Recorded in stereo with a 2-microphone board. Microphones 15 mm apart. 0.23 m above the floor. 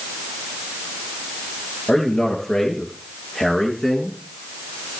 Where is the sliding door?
No sliding door in this recording.